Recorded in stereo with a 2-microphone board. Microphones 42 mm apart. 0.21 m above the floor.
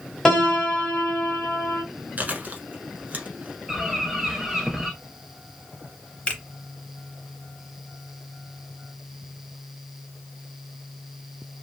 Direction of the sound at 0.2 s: 10° left (ahead or behind).